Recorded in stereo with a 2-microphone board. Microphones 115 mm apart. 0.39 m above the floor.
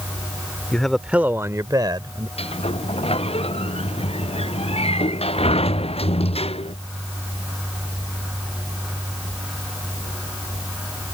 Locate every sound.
0.7 s a man speaking: 10° left (ahead or behind); by 2.3 s 45° right (ahead or behind)
2.4 s a sliding door: 55° left (ahead or behind)